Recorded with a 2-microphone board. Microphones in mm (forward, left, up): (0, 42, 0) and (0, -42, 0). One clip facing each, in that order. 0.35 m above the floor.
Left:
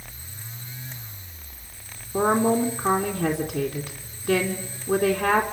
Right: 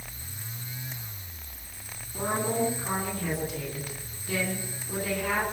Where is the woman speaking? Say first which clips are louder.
Left 8 dB; 70° left (ahead or behind), 4 m.